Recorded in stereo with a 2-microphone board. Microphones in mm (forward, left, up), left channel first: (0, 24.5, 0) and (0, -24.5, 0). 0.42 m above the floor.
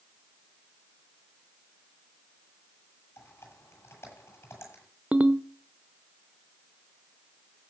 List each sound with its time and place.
3.2 s typing on a keyboard: 60° left (ahead or behind), 8.5 m
5.1 s a ringtone: 30° right (ahead or behind), 0.9 m